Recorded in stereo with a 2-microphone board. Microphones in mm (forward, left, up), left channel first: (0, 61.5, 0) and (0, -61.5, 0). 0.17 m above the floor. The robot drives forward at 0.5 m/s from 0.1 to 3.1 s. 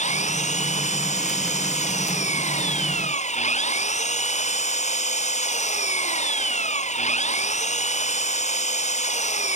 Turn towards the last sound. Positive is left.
turn(degrees=70)  # may be behind; listen again after turning